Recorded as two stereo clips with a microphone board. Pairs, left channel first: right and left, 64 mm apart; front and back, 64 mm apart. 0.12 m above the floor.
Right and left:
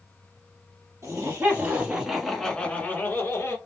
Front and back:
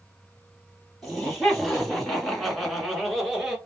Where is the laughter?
80° left, 1.7 m; by 3.6 s 90° right, 1.8 m.